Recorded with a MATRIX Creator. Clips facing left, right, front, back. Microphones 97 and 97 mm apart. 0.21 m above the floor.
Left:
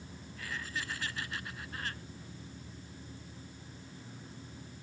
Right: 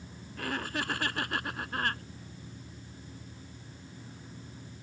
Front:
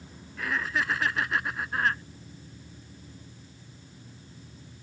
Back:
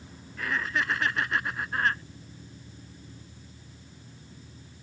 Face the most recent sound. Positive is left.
turn(degrees=-90)